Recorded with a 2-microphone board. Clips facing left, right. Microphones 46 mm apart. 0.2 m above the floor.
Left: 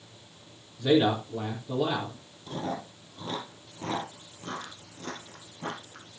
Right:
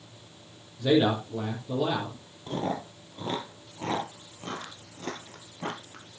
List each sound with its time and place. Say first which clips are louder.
0.8 s a man speaking: even; centre (ahead or behind), 4 m
2.5 s chewing: right 3 dB; 35° right (ahead or behind), 2.5 m